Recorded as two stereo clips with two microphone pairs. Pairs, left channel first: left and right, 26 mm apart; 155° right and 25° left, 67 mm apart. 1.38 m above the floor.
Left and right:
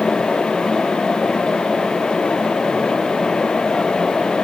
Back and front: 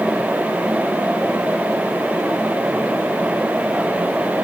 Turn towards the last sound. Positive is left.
No sound to turn to.